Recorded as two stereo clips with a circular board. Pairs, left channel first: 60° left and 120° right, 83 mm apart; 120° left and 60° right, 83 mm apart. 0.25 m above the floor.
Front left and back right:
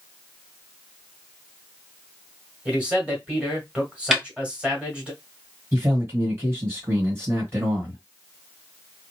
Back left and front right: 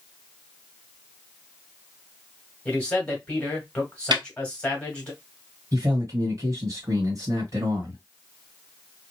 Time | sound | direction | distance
2.6 | a man speaking | straight behind | 1.6 m
4.1 | a snare drum | 35° right | 1.1 m
5.7 | a man speaking | 75° right | 1.5 m